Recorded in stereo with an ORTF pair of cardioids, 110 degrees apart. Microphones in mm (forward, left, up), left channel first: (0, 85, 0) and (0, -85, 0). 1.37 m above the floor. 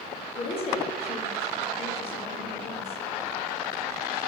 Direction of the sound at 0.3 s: 40° left.